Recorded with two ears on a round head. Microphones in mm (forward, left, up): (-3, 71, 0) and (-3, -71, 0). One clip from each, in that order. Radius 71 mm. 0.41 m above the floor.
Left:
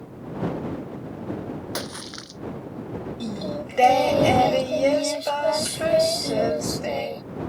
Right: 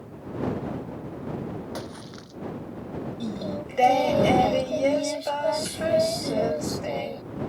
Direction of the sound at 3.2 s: 15° left (ahead or behind).